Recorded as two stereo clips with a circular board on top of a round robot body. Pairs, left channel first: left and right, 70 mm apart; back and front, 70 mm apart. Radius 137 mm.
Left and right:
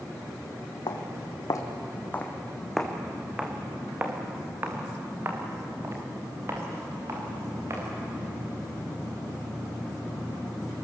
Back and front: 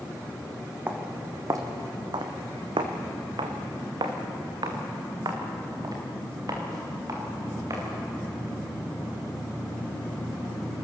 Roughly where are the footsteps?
Ahead left.